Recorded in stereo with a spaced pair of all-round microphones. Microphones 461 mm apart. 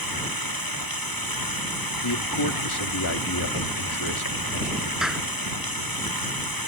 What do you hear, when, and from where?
0.0 s running water: 45° left (ahead or behind)
2.0 s a man speaking: 55° left (ahead or behind)
5.0 s a clap: centre (ahead or behind)